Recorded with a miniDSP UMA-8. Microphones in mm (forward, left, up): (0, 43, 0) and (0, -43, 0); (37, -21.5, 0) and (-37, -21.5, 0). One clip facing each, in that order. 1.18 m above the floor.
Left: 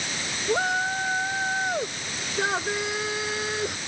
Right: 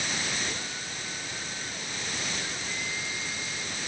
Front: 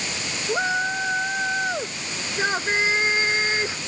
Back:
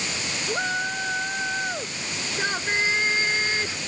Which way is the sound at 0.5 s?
75° left.